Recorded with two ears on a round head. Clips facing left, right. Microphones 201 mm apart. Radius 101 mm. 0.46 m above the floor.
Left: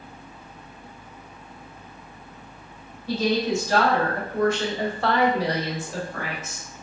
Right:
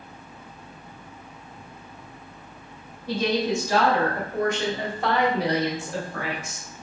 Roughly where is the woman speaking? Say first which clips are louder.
Left 1 dB; centre.